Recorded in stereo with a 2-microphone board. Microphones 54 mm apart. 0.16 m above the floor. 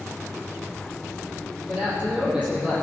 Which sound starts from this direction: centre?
A man speaking, at 1.7 s.